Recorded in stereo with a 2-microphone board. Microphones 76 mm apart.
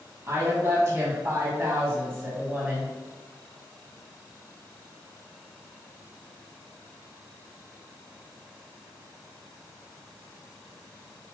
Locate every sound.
0.3 s a woman speaking: 35° right (ahead or behind), 1.9 m; by 2.9 s 25° right (ahead or behind), 1.8 m